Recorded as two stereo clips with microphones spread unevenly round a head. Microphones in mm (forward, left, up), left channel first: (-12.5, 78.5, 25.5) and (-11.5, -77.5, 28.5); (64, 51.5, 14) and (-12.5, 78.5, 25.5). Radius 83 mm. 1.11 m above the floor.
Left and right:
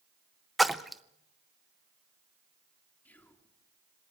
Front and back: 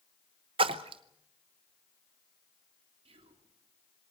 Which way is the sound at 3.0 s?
170° left.